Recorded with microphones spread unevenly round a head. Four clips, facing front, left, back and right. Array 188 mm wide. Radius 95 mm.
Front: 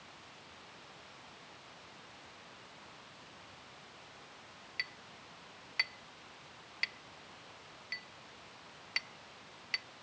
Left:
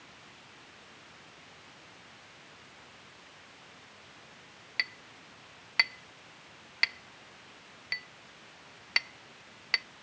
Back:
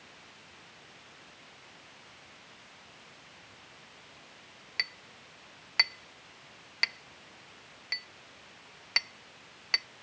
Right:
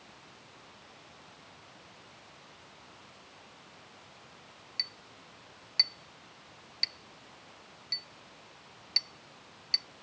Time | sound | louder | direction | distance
4.8 | a clink | left 14 dB, back 5 dB | 140° left | ?